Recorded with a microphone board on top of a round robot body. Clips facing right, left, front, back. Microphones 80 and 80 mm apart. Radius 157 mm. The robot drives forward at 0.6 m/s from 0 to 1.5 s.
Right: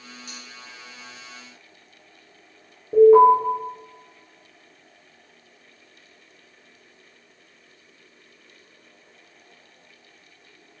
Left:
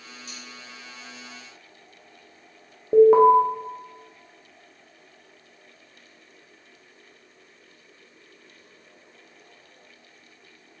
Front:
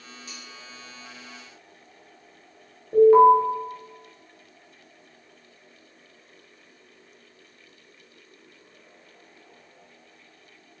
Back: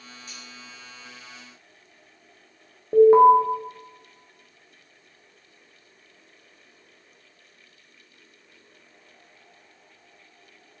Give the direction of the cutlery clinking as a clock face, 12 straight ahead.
12 o'clock.